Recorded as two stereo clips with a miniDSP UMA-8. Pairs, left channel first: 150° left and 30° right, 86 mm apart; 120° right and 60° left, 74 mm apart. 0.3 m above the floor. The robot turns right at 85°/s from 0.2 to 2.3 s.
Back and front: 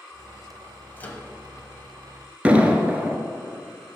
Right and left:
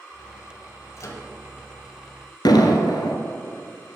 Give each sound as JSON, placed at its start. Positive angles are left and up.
{"t": 1.0, "sound": "a microwave", "azimuth_deg": -150, "distance_m": 1.0}
{"t": 2.5, "sound": "an explosion", "azimuth_deg": -105, "distance_m": 0.8}